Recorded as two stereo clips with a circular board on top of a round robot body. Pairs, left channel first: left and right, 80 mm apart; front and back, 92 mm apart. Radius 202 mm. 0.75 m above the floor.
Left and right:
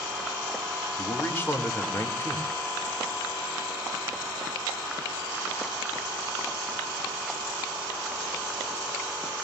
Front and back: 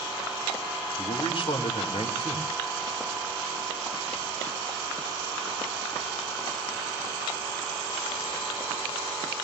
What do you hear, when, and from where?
1.0 s a man speaking: 30° left, 3 m